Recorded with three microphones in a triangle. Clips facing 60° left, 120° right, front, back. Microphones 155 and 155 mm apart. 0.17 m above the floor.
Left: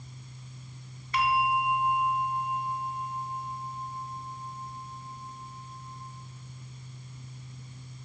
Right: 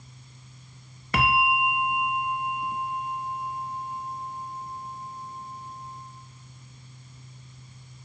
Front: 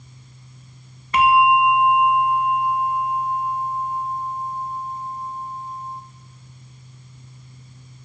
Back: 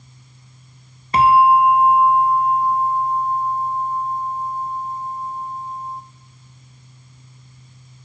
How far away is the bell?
About 0.6 m.